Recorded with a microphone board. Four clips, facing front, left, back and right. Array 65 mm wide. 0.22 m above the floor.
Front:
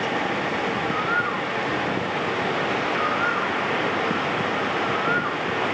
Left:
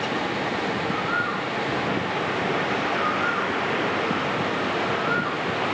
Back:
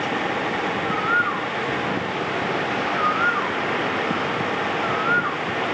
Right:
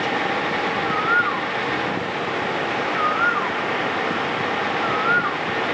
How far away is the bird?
About 0.9 m.